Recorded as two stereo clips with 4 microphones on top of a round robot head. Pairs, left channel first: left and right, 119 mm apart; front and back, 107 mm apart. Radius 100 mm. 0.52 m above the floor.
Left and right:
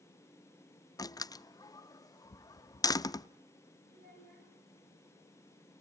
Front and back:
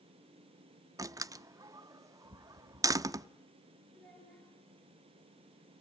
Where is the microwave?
No microwave in this recording.